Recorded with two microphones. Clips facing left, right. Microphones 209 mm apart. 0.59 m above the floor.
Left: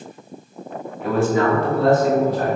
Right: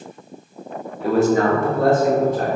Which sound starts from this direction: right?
A man speaking, at 1.0 s.